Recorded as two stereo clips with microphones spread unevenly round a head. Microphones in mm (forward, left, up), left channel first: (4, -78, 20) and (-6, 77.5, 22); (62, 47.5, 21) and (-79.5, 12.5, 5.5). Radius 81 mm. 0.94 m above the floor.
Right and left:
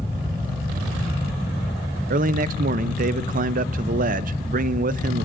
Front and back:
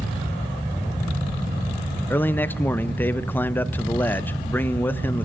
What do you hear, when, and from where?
2.1 s a man speaking: 95° left, 0.5 m